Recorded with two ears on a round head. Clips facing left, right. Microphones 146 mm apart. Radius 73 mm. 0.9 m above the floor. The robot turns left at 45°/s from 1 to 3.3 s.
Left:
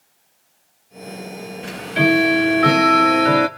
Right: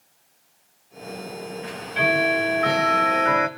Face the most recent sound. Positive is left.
turn(degrees=50)